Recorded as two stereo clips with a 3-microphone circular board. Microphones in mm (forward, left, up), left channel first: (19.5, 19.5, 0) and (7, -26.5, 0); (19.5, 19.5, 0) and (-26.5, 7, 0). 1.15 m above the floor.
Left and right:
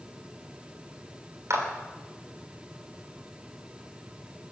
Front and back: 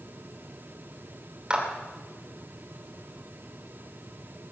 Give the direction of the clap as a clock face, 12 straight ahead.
3 o'clock.